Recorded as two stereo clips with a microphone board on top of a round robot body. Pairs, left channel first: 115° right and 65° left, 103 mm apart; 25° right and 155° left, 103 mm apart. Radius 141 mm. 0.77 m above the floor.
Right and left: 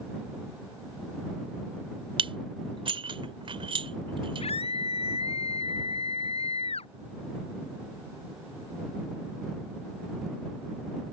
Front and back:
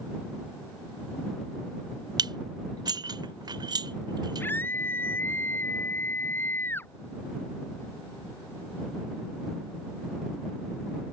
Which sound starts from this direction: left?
Dishes clattering, at 2.2 s.